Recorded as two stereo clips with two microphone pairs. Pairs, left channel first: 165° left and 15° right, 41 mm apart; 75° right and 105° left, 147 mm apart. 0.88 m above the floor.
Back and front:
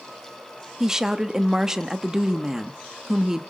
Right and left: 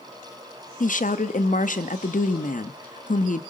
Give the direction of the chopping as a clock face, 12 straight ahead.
No chopping in this recording.